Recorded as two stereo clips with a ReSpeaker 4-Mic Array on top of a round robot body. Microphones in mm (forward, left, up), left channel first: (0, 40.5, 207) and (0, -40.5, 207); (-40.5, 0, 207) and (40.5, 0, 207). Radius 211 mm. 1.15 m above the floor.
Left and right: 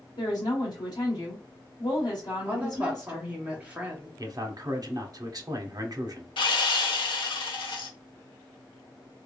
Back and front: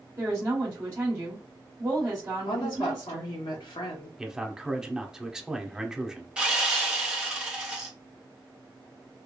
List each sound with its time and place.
0.2 s a woman speaking: 60° left, 1.3 m
2.5 s a woman speaking: 165° right, 1.1 m
4.2 s a man speaking: 80° right, 0.9 m
6.4 s sawing: 80° left, 0.7 m